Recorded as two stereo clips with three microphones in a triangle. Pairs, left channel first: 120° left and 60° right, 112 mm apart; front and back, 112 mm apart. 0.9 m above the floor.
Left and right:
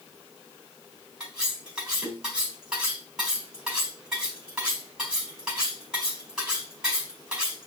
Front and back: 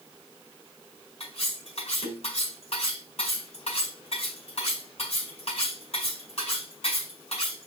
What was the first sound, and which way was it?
Cutlery clinking, 20° left.